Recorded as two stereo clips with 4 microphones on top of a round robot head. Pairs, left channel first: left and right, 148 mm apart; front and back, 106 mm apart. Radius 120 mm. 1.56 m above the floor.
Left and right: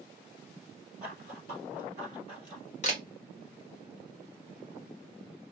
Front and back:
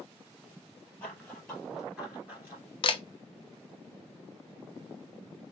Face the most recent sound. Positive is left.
turn(degrees=35)